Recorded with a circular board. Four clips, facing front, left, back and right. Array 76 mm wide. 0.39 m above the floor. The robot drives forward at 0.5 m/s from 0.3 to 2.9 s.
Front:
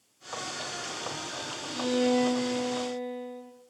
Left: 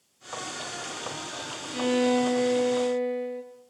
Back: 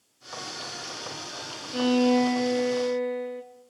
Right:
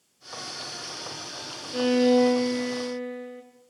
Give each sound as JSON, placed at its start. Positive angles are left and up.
{"t": 1.7, "sound": "a violin", "azimuth_deg": -130, "distance_m": 5.0}